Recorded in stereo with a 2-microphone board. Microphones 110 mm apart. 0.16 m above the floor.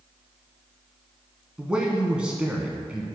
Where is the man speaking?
10° right (ahead or behind), 1.1 m.